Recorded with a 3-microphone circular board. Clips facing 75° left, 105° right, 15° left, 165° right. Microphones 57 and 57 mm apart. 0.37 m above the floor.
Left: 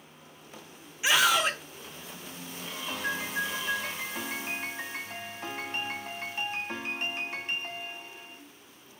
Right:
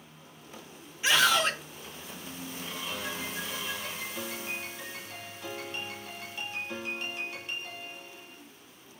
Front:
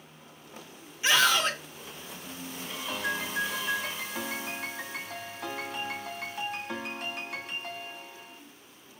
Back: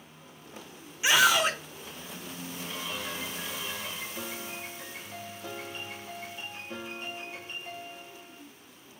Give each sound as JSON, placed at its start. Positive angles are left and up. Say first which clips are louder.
{"t": 1.0, "sound": "a scream", "louder": "even, back 1 dB", "azimuth_deg": 140, "distance_m": 0.8}
{"t": 2.9, "sound": "a piano", "louder": "left 6 dB, front 9 dB", "azimuth_deg": 35, "distance_m": 1.1}